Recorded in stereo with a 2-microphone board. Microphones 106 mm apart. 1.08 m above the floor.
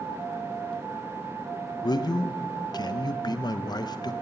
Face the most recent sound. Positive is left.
turn(degrees=40)  # may be behind; listen again after turning